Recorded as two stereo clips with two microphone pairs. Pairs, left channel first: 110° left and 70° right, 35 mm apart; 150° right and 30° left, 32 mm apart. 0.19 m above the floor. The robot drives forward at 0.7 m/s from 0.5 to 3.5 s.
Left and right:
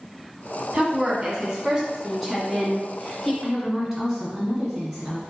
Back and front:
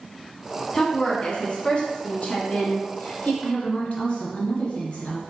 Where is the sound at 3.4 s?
155° right, 1.5 m.